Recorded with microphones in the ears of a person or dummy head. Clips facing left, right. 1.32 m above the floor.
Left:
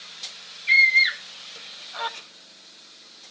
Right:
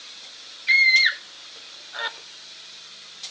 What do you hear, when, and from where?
0.7 s a scream: 20° right (ahead or behind), 2 m